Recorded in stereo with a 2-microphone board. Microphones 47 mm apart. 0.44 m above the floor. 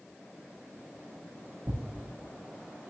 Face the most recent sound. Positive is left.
turn(degrees=-75)  # may be behind; listen again after turning